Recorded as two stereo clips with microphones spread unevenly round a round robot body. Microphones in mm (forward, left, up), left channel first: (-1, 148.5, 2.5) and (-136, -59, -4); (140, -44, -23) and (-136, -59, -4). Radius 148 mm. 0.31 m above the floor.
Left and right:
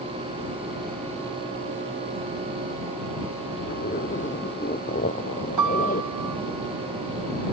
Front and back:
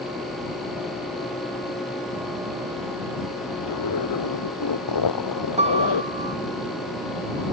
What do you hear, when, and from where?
3.6 s a zipper: 10° right
5.6 s a piano: 110° right